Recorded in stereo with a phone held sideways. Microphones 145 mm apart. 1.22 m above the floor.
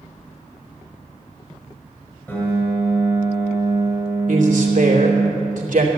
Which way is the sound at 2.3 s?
10° left (ahead or behind).